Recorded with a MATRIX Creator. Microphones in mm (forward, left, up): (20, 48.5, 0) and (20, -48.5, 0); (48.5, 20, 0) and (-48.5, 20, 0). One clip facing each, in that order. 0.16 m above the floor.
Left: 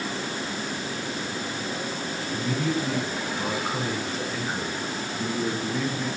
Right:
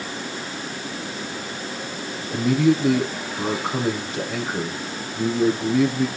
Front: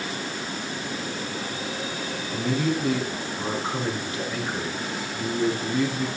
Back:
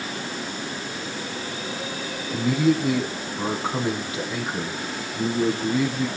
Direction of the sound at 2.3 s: 105° right.